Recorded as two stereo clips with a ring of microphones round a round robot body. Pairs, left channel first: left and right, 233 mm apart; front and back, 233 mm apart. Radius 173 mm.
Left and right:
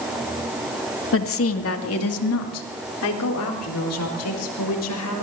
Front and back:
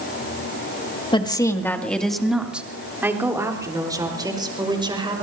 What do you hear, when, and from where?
1.1 s a woman speaking: 70° left, 2 m; by 5.2 s 110° left, 5.5 m